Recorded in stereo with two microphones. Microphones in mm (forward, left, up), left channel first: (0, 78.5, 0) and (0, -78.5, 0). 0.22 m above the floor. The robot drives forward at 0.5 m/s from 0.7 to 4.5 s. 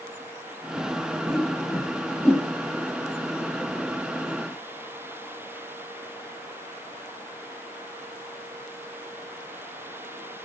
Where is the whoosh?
5° left (ahead or behind), 7 m.